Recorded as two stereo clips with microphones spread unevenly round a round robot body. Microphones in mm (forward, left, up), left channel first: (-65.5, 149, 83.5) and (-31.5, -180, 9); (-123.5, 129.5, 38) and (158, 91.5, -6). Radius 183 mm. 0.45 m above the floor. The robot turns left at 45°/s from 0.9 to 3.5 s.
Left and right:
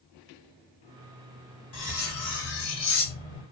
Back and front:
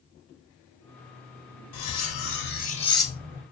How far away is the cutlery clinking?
About 1.3 m.